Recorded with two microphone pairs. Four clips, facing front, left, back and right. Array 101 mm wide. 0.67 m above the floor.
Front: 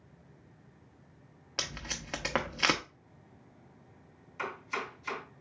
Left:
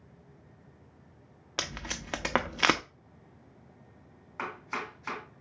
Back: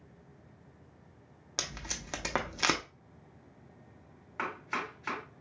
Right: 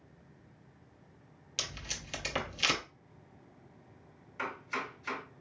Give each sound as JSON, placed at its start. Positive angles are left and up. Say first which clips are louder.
{"t": 1.6, "sound": "tape being pulled", "louder": "left 7 dB, front 1 dB", "azimuth_deg": 90, "distance_m": 0.5}
{"t": 4.4, "sound": "chopping", "louder": "left 1 dB, back 1 dB", "azimuth_deg": 140, "distance_m": 2.5}